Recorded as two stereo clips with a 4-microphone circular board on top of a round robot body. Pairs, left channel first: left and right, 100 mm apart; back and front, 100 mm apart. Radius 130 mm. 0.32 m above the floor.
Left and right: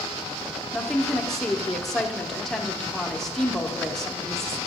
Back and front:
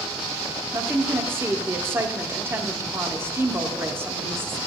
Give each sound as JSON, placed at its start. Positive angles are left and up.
{"t": 0.7, "sound": "a woman speaking", "azimuth_deg": 5, "distance_m": 1.1}